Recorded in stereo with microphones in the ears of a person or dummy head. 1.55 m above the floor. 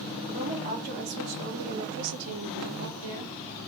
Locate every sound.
0.3 s a woman speaking: 40° right (ahead or behind), 1.2 m